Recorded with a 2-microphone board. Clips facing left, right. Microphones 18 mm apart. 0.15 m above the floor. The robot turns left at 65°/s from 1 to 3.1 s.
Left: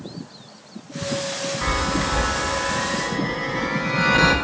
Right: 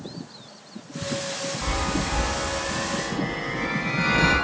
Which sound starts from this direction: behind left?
A chime, at 1.6 s.